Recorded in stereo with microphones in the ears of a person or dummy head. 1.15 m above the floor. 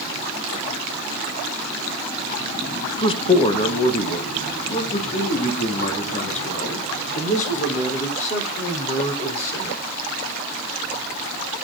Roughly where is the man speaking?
Left.